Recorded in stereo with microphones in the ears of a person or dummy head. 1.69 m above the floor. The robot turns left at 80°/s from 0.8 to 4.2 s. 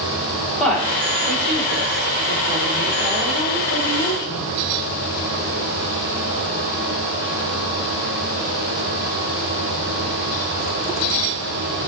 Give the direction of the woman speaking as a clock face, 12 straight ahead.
12 o'clock.